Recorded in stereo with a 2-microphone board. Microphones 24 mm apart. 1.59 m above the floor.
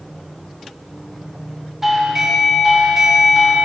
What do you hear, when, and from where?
1.8 s a doorbell: 15° right (ahead or behind), 2 m